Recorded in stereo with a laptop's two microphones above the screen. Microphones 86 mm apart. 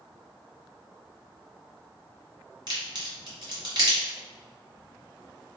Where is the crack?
55° right (ahead or behind), 1.7 m.